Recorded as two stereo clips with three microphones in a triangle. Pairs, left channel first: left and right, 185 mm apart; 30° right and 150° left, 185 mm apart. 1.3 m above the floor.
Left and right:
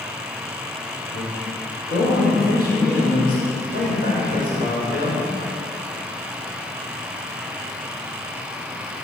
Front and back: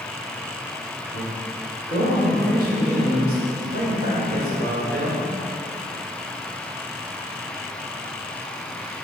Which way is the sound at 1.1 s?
120° left.